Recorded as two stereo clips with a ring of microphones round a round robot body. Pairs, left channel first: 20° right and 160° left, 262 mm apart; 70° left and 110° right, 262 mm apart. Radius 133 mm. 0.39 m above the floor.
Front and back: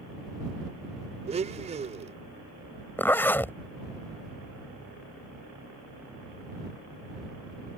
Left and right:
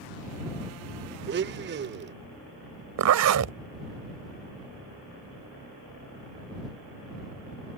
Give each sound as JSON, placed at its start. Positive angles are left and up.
{"t": 1.3, "sound": "a blender", "azimuth_deg": -145}
{"t": 3.0, "sound": "a zipper", "azimuth_deg": -105}